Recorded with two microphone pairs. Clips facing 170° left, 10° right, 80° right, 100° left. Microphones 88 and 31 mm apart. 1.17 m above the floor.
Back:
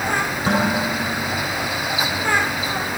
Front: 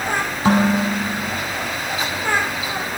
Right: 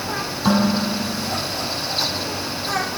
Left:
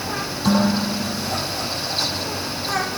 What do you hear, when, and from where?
0.5 s dishes clattering: 5° right, 7 m